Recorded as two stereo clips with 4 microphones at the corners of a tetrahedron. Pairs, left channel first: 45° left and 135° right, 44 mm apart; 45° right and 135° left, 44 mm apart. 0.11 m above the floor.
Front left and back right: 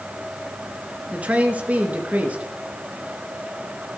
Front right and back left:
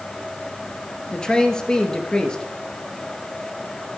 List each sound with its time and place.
1.1 s a man speaking: 105° right, 2 m